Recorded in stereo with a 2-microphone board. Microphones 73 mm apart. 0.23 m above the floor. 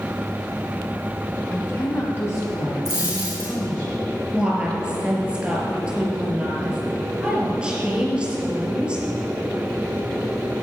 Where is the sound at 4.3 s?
15° right (ahead or behind), 3.5 m.